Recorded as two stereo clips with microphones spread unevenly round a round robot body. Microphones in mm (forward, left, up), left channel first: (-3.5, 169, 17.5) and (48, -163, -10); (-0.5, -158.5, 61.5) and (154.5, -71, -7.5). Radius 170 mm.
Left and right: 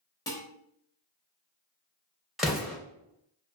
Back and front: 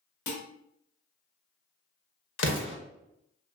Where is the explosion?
165° right, 0.5 m.